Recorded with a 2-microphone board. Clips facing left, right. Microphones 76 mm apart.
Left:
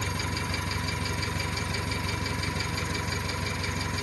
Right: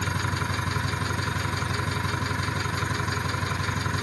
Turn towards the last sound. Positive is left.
turn(degrees=-50)  # may be behind; listen again after turning